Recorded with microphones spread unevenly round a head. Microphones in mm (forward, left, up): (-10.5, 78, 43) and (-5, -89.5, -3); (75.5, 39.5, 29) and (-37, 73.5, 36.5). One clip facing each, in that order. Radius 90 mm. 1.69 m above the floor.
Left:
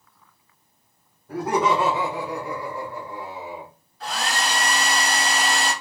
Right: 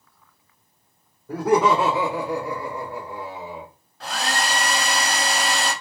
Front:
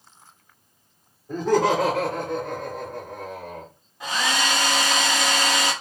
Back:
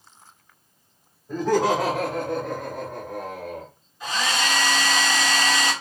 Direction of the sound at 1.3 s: 100° right.